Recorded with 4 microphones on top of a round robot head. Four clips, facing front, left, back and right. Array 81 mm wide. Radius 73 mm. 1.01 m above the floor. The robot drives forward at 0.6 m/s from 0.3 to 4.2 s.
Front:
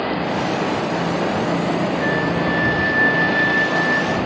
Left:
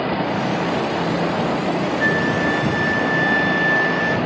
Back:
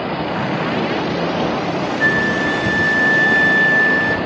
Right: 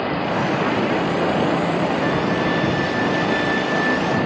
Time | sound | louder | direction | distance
2.0 | a flute | left 1 dB, back 3 dB | 160° left | 0.9 m